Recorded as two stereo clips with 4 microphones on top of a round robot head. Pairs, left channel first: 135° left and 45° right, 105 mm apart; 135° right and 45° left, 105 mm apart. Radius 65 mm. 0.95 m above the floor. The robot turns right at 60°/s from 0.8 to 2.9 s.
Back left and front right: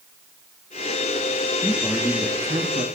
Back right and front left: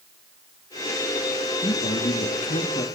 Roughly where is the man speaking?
Behind.